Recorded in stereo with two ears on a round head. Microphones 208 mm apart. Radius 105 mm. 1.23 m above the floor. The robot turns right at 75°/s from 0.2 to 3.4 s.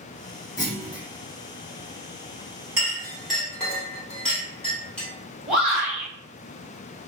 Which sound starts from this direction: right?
A clink, at 2.8 s.